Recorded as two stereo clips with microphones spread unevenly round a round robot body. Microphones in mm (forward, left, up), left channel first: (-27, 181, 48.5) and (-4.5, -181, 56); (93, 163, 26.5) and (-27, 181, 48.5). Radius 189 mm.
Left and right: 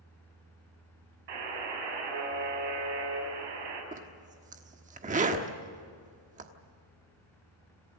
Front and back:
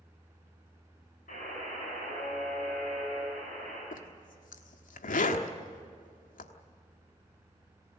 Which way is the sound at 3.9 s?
15° right.